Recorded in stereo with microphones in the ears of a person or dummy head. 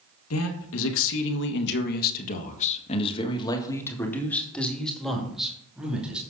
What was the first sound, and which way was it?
A man speaking, 80° left.